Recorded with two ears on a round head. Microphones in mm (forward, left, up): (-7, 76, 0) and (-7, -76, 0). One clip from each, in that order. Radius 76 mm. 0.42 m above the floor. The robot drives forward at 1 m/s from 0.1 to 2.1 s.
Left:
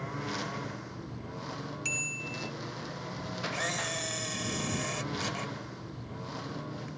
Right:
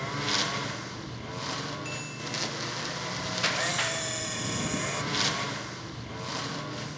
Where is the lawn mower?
70° right (ahead or behind); by 7.0 s 65° right (ahead or behind).